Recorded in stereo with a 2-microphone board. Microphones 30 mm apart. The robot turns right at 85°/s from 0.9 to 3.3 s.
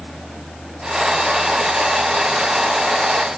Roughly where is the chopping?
I don't hear chopping.